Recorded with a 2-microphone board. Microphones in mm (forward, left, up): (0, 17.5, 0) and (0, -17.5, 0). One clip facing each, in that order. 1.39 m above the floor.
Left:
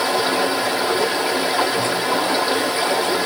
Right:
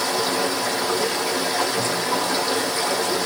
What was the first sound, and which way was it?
Running water, 35° left (ahead or behind).